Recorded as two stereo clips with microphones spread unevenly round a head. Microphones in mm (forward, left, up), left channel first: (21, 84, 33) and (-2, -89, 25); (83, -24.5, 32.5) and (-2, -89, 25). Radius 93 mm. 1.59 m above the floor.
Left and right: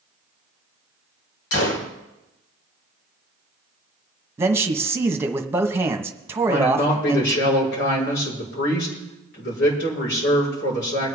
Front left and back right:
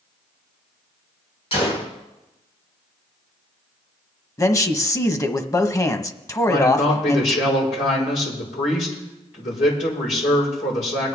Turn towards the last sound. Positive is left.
turn(degrees=60)